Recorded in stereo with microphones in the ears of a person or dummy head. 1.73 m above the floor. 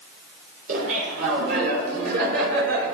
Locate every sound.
0.7 s laughter: 50° right (ahead or behind), 7 m; by 3.0 s 55° right (ahead or behind), 6 m